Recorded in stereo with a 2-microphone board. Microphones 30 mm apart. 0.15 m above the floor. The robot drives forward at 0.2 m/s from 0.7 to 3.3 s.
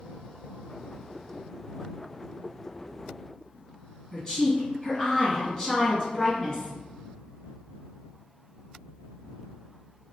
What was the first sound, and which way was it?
A woman speaking, 20° left (ahead or behind).